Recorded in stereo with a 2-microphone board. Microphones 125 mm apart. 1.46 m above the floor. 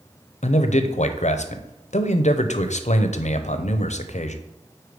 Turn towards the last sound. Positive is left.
turn(degrees=70)  # may be behind; listen again after turning